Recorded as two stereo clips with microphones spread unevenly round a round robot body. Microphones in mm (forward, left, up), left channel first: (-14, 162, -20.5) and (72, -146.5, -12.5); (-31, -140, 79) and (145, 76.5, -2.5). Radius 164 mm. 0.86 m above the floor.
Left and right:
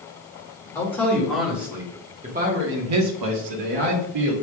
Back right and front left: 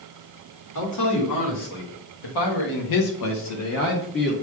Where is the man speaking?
175° right, 2.0 m; by 4.3 s 65° right, 1.3 m.